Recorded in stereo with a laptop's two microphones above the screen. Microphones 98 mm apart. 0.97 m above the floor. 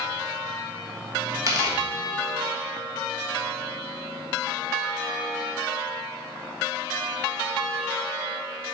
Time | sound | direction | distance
1.5 | tearing paper | 35° right (ahead or behind) | 1.5 m